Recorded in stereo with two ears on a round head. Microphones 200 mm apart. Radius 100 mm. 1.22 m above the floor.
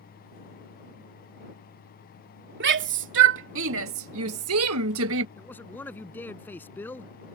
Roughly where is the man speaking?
Centre.